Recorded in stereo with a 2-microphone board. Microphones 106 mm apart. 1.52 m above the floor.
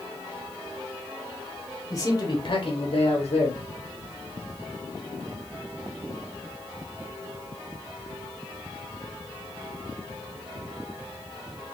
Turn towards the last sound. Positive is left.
turn(degrees=85)